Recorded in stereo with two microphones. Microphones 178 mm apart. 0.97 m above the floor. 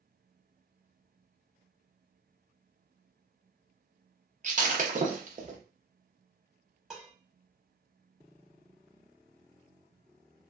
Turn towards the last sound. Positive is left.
turn(degrees=-5)  # may be behind; listen again after turning